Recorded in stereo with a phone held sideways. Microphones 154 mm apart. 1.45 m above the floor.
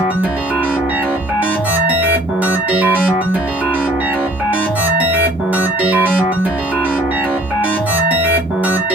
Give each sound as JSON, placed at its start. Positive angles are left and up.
{"t": 0.0, "sound": "a machine running", "side_deg": -10, "distance_m": 2.0}